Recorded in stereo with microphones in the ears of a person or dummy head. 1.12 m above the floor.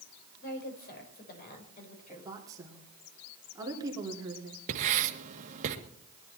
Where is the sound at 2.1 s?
20° right (ahead or behind), 3 m.